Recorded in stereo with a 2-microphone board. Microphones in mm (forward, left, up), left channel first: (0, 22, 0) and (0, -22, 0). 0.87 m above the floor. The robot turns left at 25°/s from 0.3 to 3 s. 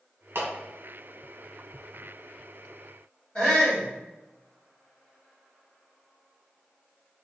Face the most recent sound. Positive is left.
turn(degrees=10)  # may be behind; listen again after turning